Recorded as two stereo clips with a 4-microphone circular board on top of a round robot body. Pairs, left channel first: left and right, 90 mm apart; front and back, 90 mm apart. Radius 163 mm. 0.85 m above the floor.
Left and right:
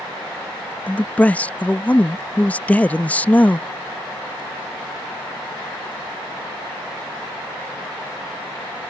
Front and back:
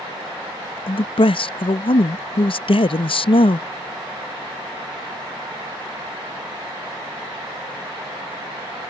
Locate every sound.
0.9 s a man speaking: 15° left